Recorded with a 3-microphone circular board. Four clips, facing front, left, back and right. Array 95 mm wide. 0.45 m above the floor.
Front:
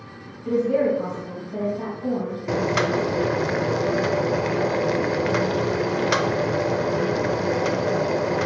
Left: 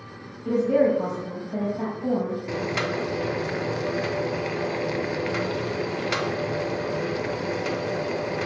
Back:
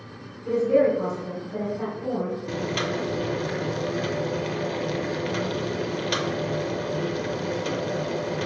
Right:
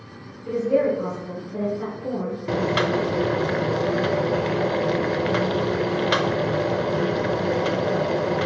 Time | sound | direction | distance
0.5 | a woman speaking | 80° left | 3 m
2.5 | boiling | 45° right | 0.5 m